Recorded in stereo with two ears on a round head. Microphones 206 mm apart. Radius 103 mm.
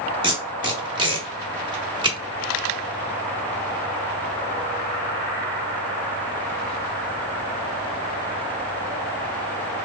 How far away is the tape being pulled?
About 1.0 m.